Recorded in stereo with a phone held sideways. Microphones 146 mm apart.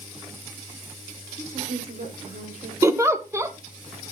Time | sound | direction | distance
1.4 | a woman speaking | 45° right (ahead or behind) | 3.5 m
2.8 | a giggle | 20° right (ahead or behind) | 0.9 m